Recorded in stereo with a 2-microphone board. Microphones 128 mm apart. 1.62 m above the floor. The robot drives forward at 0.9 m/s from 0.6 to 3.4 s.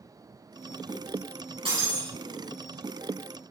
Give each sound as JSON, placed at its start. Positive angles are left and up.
{"t": 1.6, "sound": "breaking glass", "side_deg": -50, "distance_m": 5.0}